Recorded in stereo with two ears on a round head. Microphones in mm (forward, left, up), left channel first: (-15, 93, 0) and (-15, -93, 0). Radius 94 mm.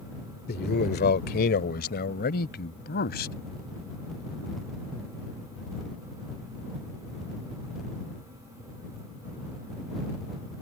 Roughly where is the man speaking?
Left.